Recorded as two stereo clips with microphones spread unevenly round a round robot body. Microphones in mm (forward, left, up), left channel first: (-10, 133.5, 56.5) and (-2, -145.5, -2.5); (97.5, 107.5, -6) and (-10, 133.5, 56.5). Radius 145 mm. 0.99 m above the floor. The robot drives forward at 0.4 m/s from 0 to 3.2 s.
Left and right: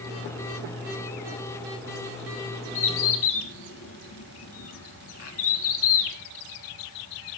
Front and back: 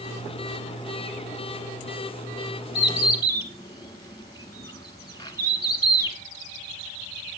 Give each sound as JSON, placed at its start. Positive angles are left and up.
{"t": 2.8, "sound": "a bird", "azimuth_deg": 45, "distance_m": 1.4}